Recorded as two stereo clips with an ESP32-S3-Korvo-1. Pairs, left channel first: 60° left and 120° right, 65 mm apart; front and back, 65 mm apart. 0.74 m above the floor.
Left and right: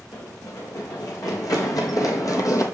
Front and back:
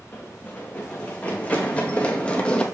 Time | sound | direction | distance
0.1 | running footsteps | 65° left | 3 m